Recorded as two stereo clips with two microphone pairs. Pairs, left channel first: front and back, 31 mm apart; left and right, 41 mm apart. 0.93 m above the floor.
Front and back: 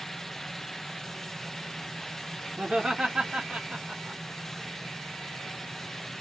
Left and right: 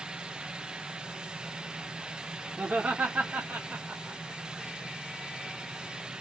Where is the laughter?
135° right, 2.5 m; by 4.2 s 115° right, 1.7 m.